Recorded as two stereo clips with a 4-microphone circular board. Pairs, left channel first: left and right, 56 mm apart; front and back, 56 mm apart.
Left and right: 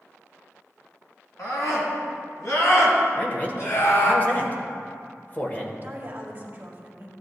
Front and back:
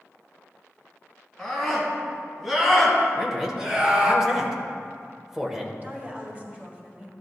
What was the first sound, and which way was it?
A scream, 80° left.